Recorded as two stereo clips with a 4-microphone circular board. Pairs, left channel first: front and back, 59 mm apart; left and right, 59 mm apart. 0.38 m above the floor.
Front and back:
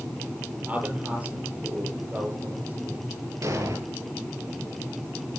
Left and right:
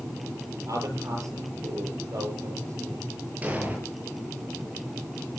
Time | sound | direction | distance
0.7 | a man speaking | 115° right | 8.5 m
3.4 | an explosion | 155° right | 8 m